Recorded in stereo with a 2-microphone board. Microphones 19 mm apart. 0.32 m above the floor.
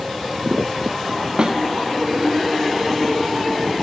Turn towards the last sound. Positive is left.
turn(degrees=-45)  # may be behind; listen again after turning